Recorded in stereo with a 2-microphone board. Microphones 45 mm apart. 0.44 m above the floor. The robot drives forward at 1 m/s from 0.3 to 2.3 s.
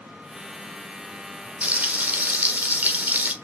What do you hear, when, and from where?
1.6 s frying: 35° right (ahead or behind), 1.4 m; by 3.3 s 45° right (ahead or behind), 1.2 m